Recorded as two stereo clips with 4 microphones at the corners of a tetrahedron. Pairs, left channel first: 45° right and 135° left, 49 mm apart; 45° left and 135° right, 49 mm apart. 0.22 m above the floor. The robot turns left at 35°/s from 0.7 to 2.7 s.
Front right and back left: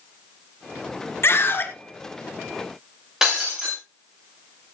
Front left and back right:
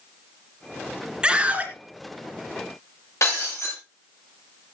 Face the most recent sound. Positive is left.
turn(degrees=55)